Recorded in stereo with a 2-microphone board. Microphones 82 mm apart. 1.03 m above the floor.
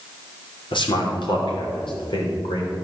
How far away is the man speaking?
About 2.5 m.